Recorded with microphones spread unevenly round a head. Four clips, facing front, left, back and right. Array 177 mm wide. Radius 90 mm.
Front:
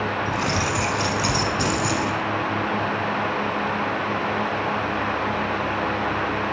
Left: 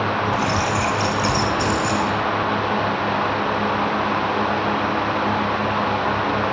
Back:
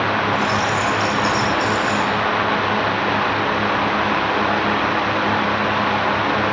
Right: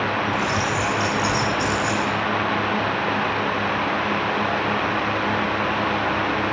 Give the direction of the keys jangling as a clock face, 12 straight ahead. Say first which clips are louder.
Left 2 dB, back 5 dB; 11 o'clock.